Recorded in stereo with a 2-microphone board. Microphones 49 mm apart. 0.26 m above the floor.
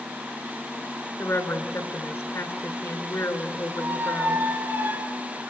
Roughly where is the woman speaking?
Left.